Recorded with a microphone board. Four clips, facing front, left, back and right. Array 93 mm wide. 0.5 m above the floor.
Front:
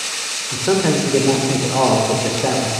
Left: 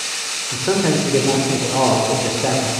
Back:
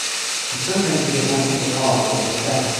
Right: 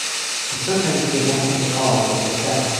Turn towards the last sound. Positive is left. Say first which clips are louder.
# left 3 dB, front 4 dB
turn(degrees=35)